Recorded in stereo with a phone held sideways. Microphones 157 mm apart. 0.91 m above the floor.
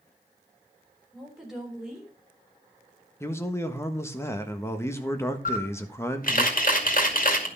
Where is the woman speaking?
5° right (ahead or behind), 4 m.